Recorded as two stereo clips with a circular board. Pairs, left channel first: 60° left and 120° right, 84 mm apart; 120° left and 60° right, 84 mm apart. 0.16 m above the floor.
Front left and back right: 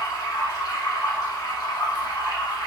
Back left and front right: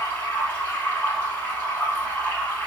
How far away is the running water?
About 1.2 m.